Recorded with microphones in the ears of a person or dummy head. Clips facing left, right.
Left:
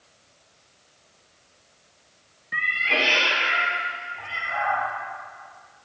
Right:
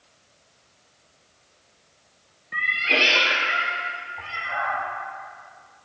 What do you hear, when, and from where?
2.5 s a cat meowing: 5° left (ahead or behind), 0.6 m; by 4.8 s 75° right (ahead or behind), 2.5 m